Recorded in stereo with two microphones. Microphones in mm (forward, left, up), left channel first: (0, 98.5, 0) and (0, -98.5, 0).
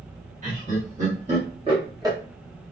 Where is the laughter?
40° right (ahead or behind), 1.5 m; by 2.2 s 15° right (ahead or behind), 1.4 m.